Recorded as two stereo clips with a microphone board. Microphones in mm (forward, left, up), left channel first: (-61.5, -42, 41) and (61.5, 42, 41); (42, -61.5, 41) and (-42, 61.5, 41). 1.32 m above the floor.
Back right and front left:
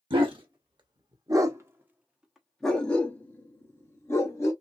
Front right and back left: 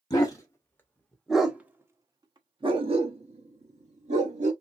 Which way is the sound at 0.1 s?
5° right.